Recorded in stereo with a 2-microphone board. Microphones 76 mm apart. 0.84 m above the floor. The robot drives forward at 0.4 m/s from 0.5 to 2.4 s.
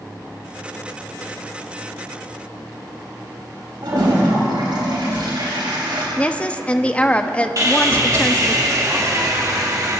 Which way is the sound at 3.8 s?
80° right.